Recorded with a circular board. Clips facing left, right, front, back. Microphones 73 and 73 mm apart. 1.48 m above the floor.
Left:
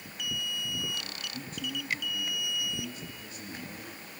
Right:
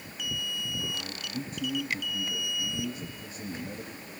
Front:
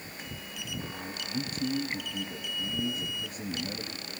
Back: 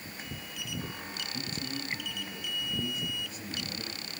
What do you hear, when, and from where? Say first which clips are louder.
0.9 s a man speaking: right 3 dB, front 4 dB; 20° right, 2.5 m